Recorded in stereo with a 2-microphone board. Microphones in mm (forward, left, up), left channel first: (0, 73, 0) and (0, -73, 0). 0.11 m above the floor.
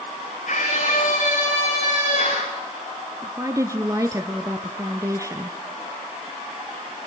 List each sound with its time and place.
0.5 s a scream: 65° left (ahead or behind), 7.5 m; by 2.5 s 60° left (ahead or behind), 7 m
3.2 s a woman speaking: 25° right (ahead or behind), 1.4 m